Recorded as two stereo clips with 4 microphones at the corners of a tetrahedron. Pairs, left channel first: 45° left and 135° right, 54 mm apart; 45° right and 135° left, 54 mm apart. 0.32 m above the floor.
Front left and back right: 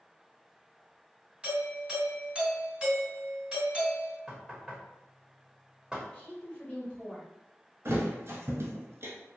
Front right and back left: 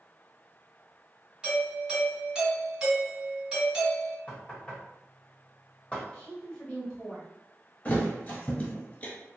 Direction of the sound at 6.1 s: 10° left.